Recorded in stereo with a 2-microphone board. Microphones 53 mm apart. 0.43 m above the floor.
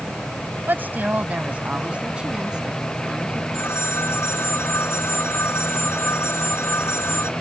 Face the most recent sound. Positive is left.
turn(degrees=55)  # may be behind; listen again after turning